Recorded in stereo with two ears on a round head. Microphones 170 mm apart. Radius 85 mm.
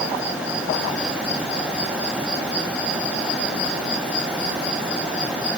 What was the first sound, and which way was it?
Only background noise.